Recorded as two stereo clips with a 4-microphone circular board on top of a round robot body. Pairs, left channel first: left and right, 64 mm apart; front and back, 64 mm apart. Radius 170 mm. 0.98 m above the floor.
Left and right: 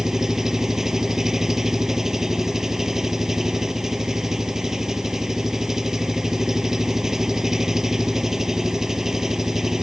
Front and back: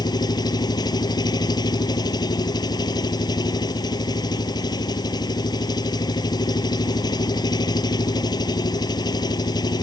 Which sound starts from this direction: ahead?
An engine running, at 0.0 s.